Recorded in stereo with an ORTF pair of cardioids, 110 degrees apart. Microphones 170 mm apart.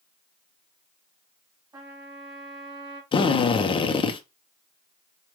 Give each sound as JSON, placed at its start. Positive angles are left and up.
{"t": 1.7, "sound": "a trumpet", "azimuth_deg": -25, "distance_m": 2.5}
{"t": 3.1, "sound": "a drill", "azimuth_deg": 30, "distance_m": 0.8}